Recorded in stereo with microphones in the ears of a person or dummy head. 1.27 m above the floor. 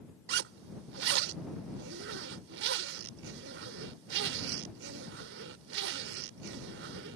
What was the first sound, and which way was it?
A zipper, 70° right (ahead or behind).